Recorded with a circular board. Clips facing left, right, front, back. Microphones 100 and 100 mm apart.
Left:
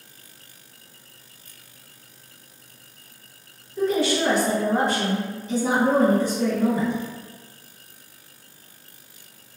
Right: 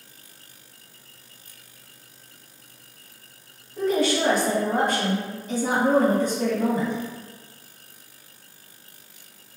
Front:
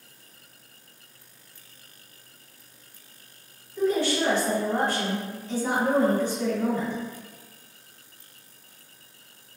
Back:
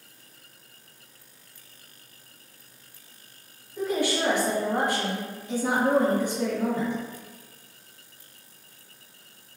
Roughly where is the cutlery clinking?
I don't hear cutlery clinking.